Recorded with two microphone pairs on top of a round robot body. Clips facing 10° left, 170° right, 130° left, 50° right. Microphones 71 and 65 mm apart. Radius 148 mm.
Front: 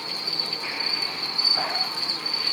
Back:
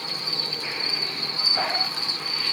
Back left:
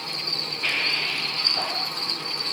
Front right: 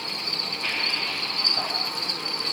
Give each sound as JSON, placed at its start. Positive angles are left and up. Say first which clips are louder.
{"t": 0.0, "sound": "an insect", "louder": "back 1 dB, even", "azimuth_deg": -140, "distance_m": 7.5}